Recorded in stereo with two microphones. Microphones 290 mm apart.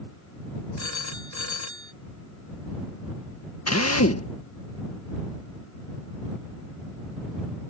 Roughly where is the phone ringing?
Left.